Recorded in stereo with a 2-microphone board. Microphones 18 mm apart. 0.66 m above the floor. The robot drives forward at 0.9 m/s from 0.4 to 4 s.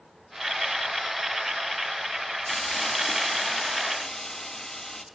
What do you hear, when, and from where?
2.5 s a hiss: 30° left (ahead or behind), 1.1 m; by 5.0 s 25° left (ahead or behind), 1.4 m